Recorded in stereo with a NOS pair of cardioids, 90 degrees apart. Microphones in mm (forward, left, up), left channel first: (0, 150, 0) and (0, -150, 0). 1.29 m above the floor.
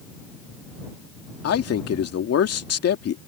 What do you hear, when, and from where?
1.4 s a man speaking: 55° left